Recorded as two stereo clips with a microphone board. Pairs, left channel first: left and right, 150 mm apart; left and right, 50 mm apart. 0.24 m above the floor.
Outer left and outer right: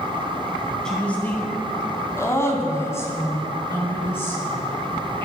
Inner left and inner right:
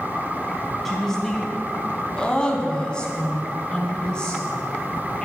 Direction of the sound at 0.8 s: 5° left (ahead or behind).